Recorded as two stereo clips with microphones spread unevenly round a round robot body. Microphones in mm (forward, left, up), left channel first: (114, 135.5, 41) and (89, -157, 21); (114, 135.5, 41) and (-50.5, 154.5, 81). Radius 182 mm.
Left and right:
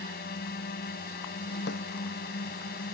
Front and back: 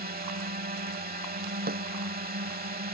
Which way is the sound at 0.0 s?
145° left.